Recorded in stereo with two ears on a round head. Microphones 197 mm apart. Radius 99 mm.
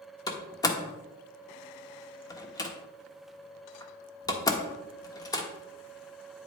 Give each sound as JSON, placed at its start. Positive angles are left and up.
{"t": 0.3, "sound": "a door slam", "side_deg": 15, "distance_m": 1.2}